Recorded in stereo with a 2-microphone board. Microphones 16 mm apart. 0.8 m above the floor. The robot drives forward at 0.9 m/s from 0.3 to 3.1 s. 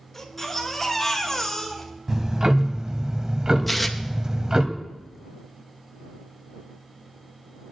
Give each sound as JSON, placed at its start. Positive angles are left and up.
{"t": 0.1, "sound": "a baby crying", "side_deg": 20, "distance_m": 3.5}
{"t": 2.1, "sound": "ticking", "side_deg": -35, "distance_m": 1.1}
{"t": 3.7, "sound": "tearing paper", "side_deg": 5, "distance_m": 0.8}